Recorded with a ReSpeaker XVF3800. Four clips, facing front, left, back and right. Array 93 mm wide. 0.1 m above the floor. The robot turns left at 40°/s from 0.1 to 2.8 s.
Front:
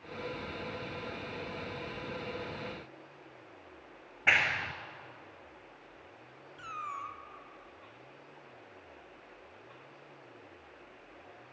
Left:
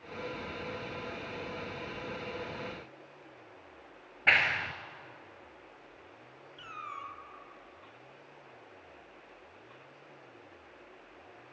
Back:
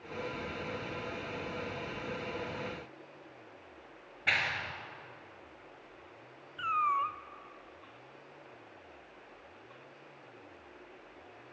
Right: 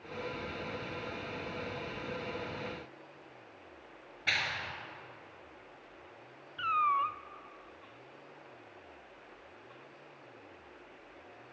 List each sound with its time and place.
4.3 s a clap: 60° left, 1.4 m
6.6 s a cat meowing: 125° right, 0.6 m